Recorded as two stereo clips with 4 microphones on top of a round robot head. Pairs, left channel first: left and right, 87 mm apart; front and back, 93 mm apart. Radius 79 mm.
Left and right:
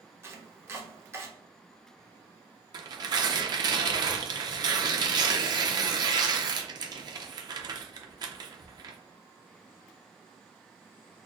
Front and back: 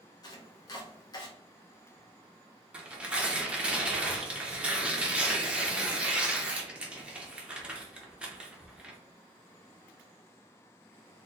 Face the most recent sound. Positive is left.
turn(degrees=-105)